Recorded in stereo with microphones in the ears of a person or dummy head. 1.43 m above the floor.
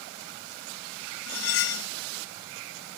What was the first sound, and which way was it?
Cutlery clinking, 70° left (ahead or behind).